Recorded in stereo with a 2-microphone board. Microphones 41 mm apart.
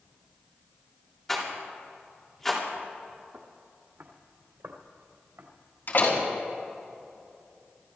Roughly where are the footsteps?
Right.